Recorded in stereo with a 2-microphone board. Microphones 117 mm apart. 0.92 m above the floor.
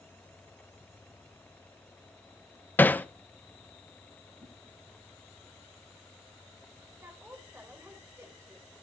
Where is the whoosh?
70° right (ahead or behind), 7.5 m.